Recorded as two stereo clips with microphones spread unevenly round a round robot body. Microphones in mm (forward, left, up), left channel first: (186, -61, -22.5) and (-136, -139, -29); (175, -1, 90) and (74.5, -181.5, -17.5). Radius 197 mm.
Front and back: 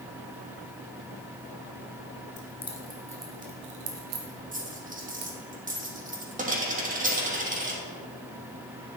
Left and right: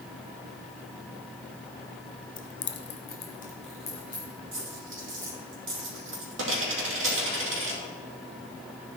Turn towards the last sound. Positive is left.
turn(degrees=-100)